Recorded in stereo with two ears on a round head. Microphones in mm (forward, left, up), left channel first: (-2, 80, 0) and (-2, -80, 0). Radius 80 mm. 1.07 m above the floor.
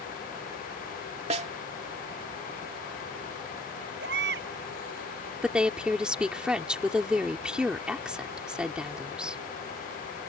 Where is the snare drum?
40° right (ahead or behind).